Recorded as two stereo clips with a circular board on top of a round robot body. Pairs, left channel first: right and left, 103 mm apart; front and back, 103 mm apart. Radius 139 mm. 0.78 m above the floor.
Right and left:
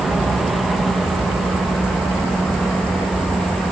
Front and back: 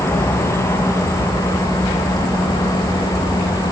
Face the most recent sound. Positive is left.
turn(degrees=0)